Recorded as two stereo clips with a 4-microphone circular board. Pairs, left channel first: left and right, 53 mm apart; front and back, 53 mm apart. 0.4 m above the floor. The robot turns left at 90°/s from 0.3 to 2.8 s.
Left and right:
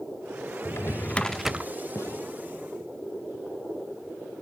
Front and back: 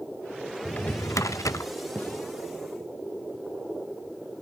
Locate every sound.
0.7 s a drawer: 65° left, 0.7 m; by 1.7 s 25° right, 0.7 m
1.9 s a gunshot: 65° left, 3.5 m; by 2.3 s 30° left, 3.5 m